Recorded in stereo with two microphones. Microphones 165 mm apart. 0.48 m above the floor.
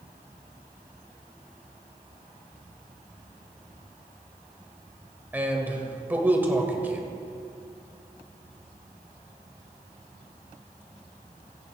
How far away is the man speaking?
About 1.5 m.